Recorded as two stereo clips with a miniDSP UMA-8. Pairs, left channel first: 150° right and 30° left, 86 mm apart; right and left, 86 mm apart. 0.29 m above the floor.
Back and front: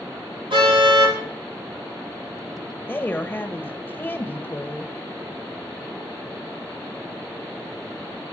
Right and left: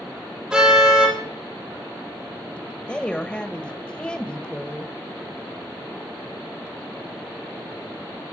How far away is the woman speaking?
About 1.2 m.